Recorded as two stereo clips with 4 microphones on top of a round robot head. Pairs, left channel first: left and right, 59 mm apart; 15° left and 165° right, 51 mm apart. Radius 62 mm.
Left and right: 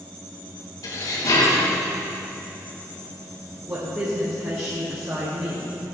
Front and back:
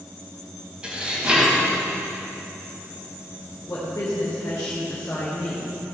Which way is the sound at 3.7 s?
40° right.